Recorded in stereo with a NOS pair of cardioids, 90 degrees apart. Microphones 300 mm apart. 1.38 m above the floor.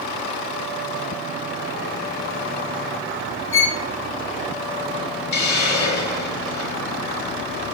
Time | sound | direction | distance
3.5 | a violin | 40° left | 1.5 m
5.3 | a hiss | 65° left | 3.5 m